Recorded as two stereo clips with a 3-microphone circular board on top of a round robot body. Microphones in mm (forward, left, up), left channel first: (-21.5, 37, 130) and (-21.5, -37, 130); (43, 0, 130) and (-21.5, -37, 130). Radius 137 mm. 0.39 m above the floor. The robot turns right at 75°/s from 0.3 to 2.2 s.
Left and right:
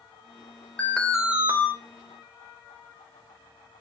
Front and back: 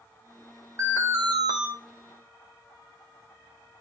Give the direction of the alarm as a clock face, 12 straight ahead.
7 o'clock.